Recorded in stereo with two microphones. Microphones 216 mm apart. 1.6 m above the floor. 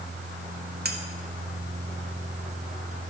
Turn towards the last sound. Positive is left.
turn(degrees=-50)  # may be behind; listen again after turning